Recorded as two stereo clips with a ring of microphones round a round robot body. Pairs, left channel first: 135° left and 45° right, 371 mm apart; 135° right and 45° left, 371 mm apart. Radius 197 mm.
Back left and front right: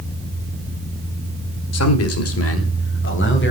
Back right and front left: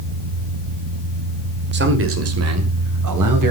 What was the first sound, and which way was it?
A man speaking, 100° left.